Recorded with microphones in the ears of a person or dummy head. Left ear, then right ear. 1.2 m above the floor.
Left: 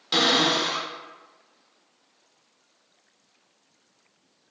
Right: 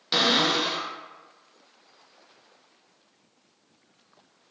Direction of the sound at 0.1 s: 10° right (ahead or behind).